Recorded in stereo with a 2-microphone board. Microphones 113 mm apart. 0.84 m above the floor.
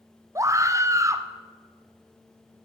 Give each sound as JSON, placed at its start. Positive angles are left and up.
{"t": 0.3, "sound": "a scream", "side_deg": -25, "distance_m": 0.6}